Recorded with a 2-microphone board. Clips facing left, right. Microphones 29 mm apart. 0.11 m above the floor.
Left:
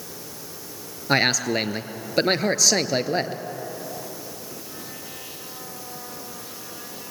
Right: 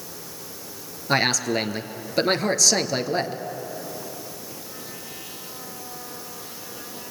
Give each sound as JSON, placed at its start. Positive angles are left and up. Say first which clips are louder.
{"t": 1.1, "sound": "a man speaking", "louder": "left 1 dB", "side_deg": 10, "distance_m": 1.5}